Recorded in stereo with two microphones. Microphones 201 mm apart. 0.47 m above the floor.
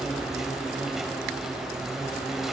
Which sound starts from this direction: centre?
An insect, at 0.0 s.